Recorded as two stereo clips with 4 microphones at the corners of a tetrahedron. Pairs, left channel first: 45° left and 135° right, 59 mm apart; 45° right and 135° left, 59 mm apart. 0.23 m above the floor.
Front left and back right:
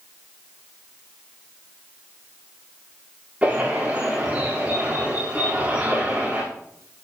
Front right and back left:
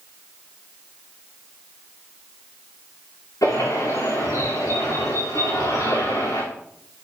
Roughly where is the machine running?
I don't hear a machine running.